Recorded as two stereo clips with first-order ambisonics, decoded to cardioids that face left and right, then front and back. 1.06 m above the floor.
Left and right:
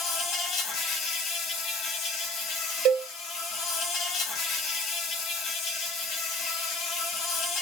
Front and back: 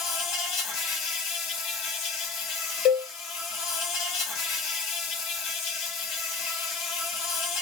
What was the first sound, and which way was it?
An insect, 40° left.